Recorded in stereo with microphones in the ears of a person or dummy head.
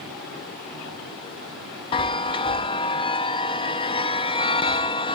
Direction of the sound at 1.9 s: 25° left (ahead or behind).